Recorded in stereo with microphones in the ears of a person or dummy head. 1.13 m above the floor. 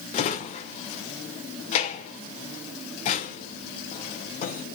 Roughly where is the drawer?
Left.